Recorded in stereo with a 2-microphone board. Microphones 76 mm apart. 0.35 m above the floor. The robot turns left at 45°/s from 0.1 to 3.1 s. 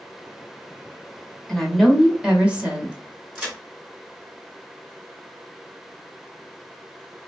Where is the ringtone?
I don't hear a ringtone.